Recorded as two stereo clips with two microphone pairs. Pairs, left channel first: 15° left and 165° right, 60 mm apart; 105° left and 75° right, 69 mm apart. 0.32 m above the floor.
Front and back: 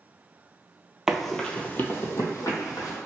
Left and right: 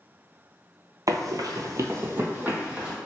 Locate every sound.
1.1 s running footsteps: 90° right, 0.5 m; by 3.0 s straight ahead, 0.9 m